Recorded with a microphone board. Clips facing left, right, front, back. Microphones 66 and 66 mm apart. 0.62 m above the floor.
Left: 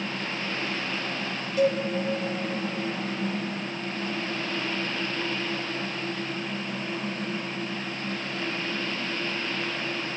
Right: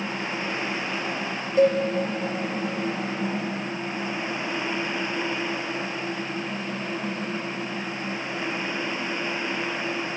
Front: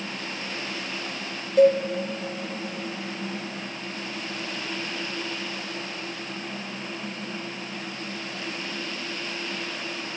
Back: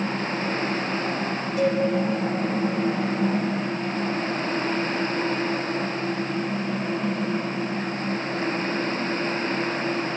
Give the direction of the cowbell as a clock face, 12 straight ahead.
1 o'clock.